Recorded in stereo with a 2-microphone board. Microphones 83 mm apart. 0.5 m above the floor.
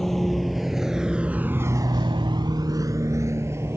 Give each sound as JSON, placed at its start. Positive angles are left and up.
{"t": 0.0, "sound": "a vehicle", "side_deg": 0}